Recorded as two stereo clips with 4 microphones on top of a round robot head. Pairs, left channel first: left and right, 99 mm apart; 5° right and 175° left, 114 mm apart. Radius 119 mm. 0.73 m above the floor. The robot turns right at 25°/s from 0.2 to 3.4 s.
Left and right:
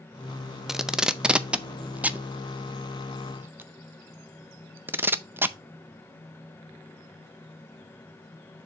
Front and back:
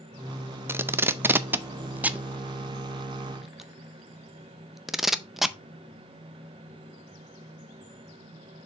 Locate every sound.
0.7 s tape being pulled: 170° right, 0.7 m; by 5.5 s 100° right, 0.7 m